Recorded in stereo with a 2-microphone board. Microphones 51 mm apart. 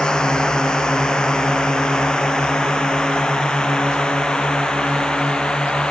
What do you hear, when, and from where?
0.0 s a drone: 15° left (ahead or behind)